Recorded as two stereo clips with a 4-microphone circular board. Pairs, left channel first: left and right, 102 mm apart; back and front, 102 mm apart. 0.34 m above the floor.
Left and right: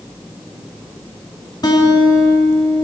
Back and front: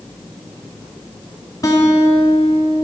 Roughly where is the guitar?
Behind left.